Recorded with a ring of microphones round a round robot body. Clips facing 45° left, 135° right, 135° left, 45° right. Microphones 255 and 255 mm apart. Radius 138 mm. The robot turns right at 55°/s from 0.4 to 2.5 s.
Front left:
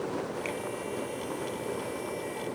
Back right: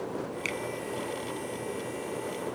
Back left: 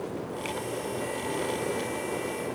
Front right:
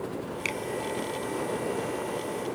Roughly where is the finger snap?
Right.